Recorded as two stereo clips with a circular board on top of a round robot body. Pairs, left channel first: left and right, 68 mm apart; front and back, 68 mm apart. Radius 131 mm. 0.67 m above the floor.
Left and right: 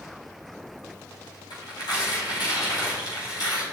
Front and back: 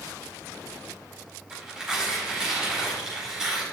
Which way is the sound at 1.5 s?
100° left.